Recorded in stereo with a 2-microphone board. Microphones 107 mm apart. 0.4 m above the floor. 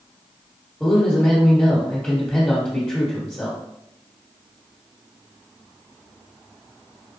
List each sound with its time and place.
0.8 s a man speaking: 10° left (ahead or behind), 1.2 m